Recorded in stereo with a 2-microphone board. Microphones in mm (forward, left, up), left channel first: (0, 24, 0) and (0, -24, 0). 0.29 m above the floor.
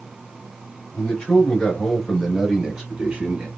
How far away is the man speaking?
About 1.5 m.